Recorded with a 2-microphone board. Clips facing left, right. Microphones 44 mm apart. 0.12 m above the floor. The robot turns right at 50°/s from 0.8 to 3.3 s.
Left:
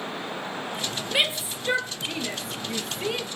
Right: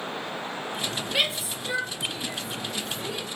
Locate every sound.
1.1 s a shout: 10° left (ahead or behind), 3 m; by 3.2 s 50° left (ahead or behind), 3 m